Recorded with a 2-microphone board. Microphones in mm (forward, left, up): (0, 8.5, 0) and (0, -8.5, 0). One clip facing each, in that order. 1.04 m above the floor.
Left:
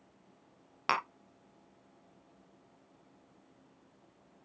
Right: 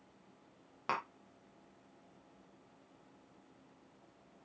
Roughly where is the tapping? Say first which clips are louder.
Left 6 dB; left.